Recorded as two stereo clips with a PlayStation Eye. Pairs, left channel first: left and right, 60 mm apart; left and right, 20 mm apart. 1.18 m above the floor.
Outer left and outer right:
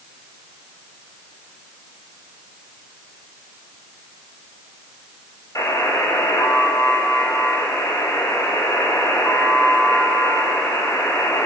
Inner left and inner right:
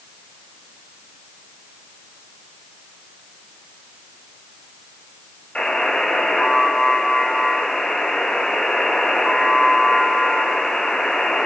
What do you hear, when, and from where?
5.5 s a buzzer: 75° left (ahead or behind), 7.5 m